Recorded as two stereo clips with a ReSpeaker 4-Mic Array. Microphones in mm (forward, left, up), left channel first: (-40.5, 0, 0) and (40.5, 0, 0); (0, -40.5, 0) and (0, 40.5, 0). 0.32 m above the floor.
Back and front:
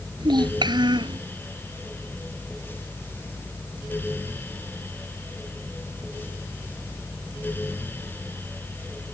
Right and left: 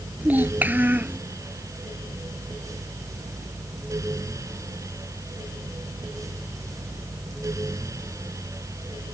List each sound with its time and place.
0.2 s a child speaking: 20° left